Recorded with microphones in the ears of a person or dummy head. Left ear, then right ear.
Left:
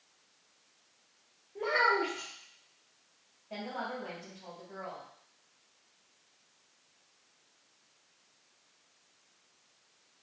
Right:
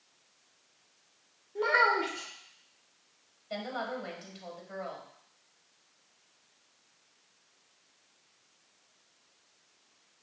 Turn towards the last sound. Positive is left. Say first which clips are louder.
# right 2 dB
turn(degrees=-40)  # may be behind; listen again after turning